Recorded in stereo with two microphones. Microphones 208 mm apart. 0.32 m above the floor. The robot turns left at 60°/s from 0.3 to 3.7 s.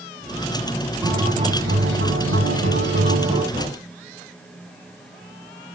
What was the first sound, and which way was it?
A guitar, 10° right.